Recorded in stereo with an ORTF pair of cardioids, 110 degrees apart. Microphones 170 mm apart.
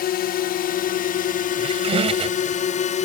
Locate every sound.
0.0 s a drone: 65° left; by 3.0 s 45° left
1.6 s a squeak: 40° right